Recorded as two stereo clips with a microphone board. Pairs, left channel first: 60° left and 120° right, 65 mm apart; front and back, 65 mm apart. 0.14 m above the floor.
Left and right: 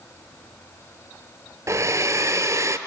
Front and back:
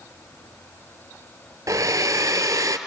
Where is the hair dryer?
155° right, 1.1 m.